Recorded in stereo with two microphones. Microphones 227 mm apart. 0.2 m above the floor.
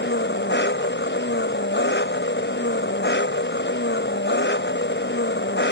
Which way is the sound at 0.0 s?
50° left (ahead or behind).